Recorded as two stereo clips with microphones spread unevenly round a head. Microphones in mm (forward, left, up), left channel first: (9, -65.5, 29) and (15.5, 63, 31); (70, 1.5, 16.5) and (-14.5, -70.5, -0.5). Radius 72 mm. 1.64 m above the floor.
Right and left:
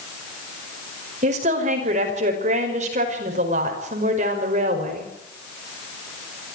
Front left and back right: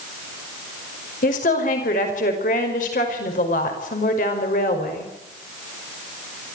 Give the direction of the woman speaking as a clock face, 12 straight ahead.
10 o'clock.